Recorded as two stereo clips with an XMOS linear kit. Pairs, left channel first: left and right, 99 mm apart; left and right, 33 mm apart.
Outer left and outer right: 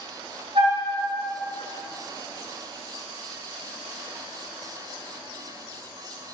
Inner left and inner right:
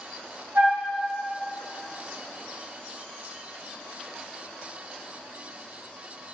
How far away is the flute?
About 1.0 m.